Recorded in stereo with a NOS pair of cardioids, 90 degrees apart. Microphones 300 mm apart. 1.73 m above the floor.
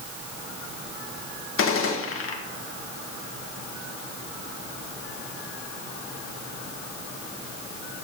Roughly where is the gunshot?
Ahead left.